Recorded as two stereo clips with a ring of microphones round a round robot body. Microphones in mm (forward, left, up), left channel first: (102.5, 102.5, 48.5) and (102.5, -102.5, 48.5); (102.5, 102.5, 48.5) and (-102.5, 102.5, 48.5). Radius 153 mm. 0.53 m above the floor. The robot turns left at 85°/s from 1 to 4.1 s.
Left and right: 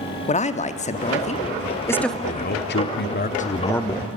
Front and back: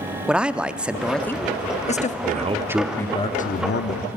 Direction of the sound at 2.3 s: 140° left.